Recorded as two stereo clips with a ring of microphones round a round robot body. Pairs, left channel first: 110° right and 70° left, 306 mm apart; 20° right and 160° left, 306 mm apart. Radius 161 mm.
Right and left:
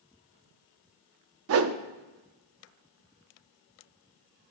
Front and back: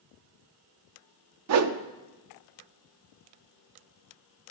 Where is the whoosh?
115° left, 0.6 m.